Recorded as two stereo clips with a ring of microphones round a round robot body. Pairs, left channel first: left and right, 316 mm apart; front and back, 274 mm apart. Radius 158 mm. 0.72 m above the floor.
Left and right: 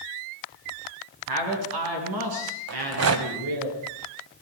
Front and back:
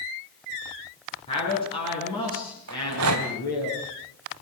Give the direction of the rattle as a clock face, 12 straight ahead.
4 o'clock.